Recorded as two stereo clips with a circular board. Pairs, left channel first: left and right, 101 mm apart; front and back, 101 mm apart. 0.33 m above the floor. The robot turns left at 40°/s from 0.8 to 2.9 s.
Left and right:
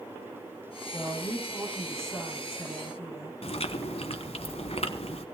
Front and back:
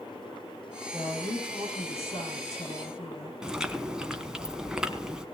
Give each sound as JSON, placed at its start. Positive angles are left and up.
{"t": 0.9, "sound": "a woman speaking", "azimuth_deg": 50, "distance_m": 7.5}
{"t": 3.4, "sound": "chewing", "azimuth_deg": 95, "distance_m": 1.3}